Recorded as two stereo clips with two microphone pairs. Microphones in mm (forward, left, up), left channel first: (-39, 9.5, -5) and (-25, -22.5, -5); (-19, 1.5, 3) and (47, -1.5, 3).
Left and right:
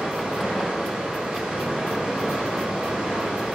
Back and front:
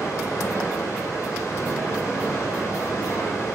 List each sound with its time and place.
0.0 s running water: 140° right, 0.8 m